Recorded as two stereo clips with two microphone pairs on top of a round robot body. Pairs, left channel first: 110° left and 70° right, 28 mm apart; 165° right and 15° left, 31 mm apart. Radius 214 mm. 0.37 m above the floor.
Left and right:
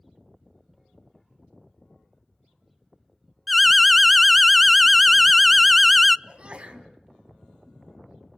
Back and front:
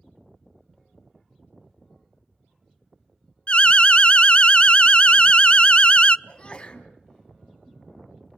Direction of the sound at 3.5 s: 140° right.